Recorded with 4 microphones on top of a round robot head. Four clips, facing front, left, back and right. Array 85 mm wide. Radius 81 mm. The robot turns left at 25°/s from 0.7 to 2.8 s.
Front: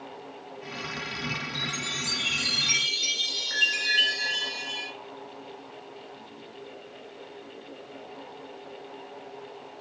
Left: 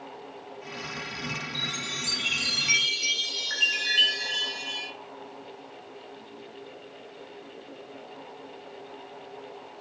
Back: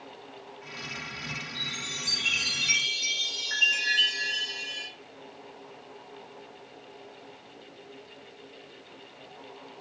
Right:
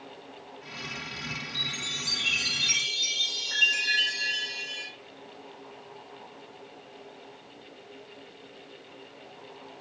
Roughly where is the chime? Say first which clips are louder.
Left 2 dB, front 4 dB; behind left.